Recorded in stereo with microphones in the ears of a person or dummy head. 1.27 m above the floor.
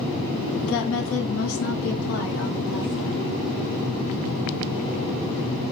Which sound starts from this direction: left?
A woman speaking, at 0.6 s.